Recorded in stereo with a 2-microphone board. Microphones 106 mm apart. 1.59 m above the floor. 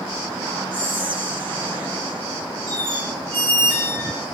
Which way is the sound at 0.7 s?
55° right (ahead or behind).